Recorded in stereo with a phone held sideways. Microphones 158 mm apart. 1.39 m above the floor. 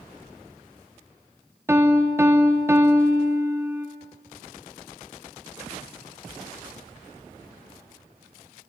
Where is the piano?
15° right (ahead or behind), 0.6 m.